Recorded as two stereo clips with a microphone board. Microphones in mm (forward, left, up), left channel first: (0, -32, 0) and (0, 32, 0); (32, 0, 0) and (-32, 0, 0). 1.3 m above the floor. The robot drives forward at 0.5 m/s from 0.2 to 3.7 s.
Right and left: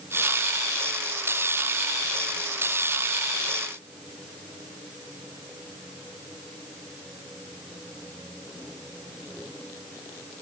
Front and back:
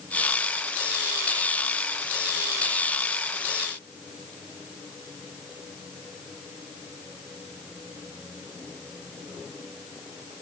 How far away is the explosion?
No explosion in this recording.